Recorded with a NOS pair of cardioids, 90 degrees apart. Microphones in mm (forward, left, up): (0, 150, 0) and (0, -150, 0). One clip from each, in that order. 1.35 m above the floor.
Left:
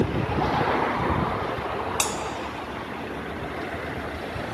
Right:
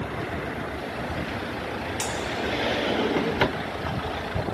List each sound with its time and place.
2.0 s a bell: 50° left, 2.0 m